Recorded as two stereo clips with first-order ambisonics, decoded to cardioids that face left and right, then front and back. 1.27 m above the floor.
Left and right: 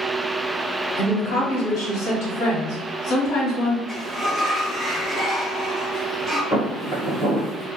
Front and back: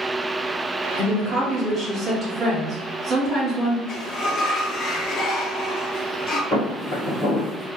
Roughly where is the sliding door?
Ahead.